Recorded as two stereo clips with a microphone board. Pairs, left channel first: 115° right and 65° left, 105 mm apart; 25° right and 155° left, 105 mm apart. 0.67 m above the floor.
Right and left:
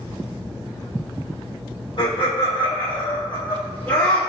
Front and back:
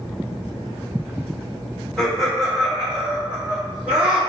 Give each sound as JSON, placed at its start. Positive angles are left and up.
{"t": 2.0, "sound": "laughter", "azimuth_deg": -105, "distance_m": 1.8}